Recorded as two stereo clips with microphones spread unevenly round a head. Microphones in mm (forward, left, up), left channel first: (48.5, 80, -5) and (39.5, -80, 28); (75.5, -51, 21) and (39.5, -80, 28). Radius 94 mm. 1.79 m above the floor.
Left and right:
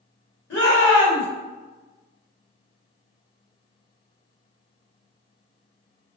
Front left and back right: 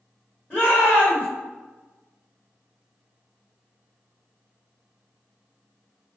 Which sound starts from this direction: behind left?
A shout, at 0.5 s.